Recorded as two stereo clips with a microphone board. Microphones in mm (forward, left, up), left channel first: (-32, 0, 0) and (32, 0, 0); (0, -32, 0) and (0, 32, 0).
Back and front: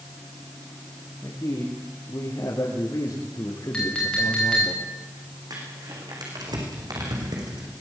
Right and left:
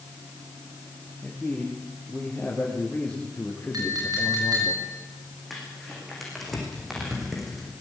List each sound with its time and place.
1.2 s a man speaking: 175° right, 6 m; by 4.7 s 150° right, 4.5 m
3.7 s a clink: 105° left, 8.5 m
5.5 s crumpling: straight ahead, 7 m